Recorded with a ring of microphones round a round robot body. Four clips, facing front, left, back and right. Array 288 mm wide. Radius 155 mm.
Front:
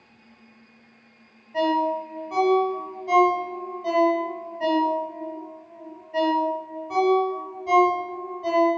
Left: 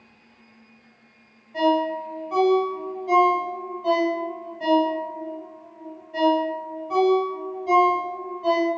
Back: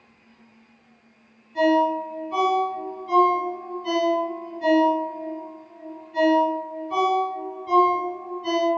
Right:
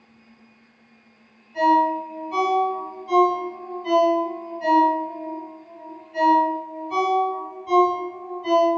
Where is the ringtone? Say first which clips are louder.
Right 3 dB, back 3 dB; 25° left, 1.4 m.